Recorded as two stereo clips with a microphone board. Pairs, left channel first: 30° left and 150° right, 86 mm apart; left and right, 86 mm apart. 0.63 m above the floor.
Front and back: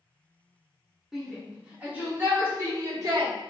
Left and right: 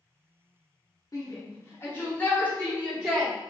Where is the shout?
125° left, 1.6 m; by 3.3 s 170° left, 2 m.